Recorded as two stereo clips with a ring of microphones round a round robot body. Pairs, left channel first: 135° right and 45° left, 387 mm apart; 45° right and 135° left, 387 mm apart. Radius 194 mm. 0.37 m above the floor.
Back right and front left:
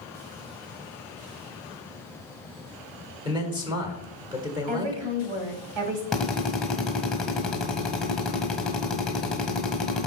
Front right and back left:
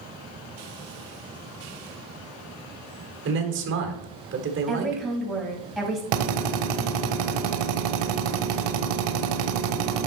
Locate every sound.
3.2 s a man speaking: 115° left, 1.4 m
4.7 s a woman speaking: 45° left, 2 m
6.1 s a drill: 135° left, 1.3 m